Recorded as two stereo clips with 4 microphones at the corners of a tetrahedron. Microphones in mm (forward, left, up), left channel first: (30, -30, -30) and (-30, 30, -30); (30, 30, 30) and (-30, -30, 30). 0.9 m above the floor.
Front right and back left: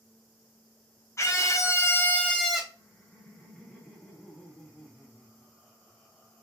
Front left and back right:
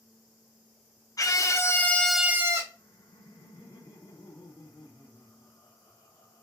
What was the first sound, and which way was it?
A scream, 5° left.